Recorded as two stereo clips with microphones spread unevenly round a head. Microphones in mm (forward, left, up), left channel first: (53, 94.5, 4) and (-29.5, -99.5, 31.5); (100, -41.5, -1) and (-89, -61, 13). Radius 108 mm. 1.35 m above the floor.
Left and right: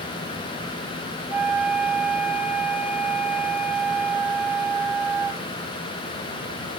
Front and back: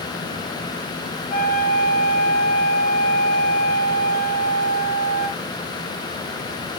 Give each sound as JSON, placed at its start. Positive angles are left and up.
{"t": 1.3, "sound": "a flute", "azimuth_deg": -30, "distance_m": 2.5}